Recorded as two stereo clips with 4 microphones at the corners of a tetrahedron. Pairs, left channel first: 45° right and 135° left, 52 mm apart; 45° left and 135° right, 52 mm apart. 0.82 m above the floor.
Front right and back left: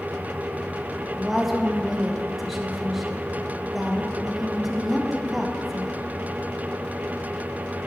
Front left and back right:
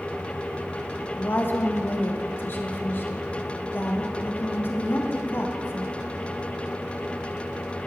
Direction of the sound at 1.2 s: 50° left.